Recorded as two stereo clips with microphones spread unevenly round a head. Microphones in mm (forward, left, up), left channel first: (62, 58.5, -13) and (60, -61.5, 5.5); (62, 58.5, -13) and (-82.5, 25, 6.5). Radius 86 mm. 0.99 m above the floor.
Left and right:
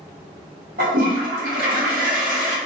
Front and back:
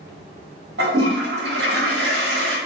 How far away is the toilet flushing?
About 0.7 m.